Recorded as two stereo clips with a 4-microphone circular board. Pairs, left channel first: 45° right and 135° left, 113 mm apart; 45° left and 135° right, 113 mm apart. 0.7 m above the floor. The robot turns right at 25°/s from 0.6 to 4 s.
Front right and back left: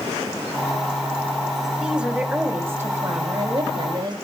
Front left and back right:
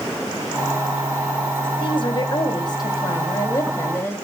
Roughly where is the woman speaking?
Ahead left.